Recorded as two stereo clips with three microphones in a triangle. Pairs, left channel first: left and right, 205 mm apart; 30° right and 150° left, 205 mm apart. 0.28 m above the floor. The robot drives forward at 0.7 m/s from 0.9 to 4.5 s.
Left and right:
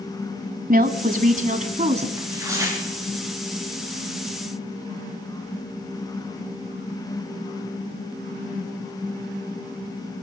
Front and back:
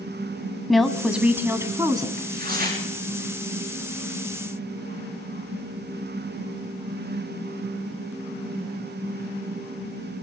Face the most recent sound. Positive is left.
turn(degrees=-165)